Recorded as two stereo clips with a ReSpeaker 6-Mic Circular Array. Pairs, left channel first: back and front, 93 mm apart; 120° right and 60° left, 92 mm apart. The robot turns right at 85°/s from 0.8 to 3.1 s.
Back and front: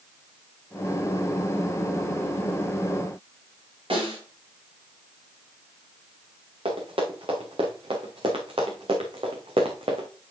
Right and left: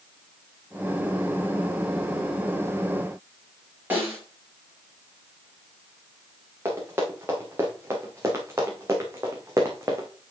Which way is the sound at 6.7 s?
5° right.